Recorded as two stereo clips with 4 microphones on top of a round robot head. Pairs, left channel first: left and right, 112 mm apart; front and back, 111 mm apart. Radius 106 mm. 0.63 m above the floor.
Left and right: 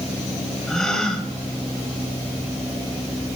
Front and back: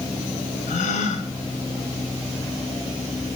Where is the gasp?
5° left, 1.7 m.